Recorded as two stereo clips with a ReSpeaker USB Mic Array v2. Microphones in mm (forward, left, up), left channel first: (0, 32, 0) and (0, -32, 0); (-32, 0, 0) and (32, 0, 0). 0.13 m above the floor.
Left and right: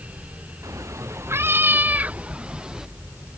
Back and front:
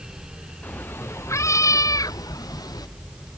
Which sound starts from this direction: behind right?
A cat meowing, at 0.6 s.